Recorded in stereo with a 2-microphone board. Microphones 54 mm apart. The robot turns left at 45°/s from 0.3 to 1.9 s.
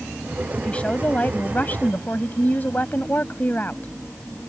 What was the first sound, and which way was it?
A woman speaking, 145° left.